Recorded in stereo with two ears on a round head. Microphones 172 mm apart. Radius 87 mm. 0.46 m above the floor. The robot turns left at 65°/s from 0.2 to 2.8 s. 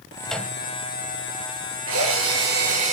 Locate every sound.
0.2 s a microwave: centre (ahead or behind), 2.5 m; by 0.6 s 20° left (ahead or behind), 2.5 m
1.9 s a drill: 75° right, 6.5 m; by 2.9 s 135° right, 6.5 m